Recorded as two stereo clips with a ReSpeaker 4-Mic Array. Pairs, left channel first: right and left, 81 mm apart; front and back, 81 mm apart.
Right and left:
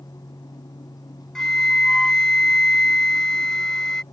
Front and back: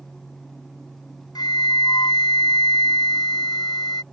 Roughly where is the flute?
Ahead.